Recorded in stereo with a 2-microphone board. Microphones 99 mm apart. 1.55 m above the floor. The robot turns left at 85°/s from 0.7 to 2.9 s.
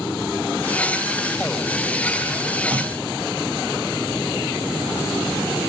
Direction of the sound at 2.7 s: 60° right (ahead or behind).